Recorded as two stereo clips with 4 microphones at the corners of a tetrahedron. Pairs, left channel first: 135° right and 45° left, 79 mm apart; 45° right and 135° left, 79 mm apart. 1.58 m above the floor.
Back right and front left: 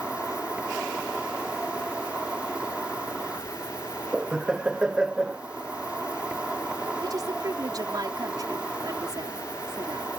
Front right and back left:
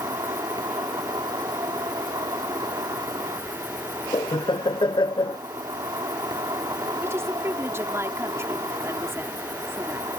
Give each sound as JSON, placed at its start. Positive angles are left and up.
{"t": 0.0, "sound": "an insect", "azimuth_deg": 120}
{"t": 4.1, "sound": "laughter", "azimuth_deg": -35}
{"t": 7.0, "sound": "a woman speaking", "azimuth_deg": 80}